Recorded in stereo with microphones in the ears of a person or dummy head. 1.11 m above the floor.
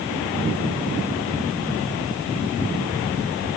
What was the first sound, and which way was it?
Only background noise.